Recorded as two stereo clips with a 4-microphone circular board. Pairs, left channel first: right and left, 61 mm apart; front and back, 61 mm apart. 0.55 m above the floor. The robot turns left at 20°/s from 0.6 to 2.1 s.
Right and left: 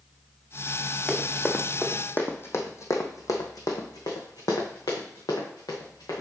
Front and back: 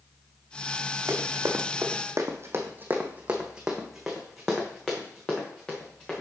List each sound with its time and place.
1.1 s running footsteps: 160° right, 1.8 m; by 6.2 s 75° right, 3.5 m